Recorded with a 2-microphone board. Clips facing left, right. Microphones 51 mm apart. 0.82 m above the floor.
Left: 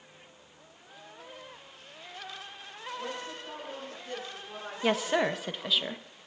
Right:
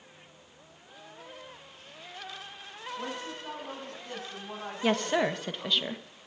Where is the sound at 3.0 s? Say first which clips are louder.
Right 1 dB; 60° right (ahead or behind), 7.5 m; by 5.8 s 40° right (ahead or behind), 5 m.